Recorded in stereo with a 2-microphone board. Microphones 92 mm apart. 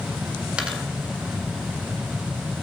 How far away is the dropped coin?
About 1.7 m.